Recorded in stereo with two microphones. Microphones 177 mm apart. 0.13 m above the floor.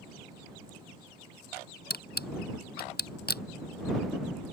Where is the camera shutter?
65° left (ahead or behind).